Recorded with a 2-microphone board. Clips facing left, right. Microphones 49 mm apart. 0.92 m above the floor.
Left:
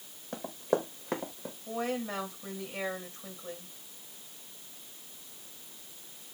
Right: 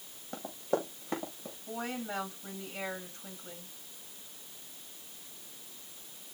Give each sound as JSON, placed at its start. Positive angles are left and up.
{"t": 0.3, "sound": "running footsteps", "side_deg": 80, "distance_m": 6.0}
{"t": 1.7, "sound": "a woman speaking", "side_deg": 85, "distance_m": 9.0}